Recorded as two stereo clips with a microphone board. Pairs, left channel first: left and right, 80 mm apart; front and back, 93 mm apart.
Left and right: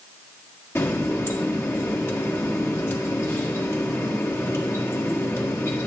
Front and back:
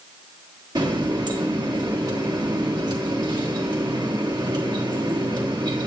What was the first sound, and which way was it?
A running tap, 145° left.